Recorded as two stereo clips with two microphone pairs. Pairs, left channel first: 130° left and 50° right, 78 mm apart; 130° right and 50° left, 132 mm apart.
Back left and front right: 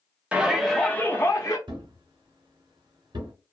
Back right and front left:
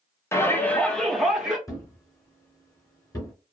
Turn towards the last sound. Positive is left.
turn(degrees=-65)